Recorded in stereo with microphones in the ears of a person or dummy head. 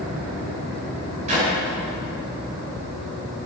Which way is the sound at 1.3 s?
40° right (ahead or behind).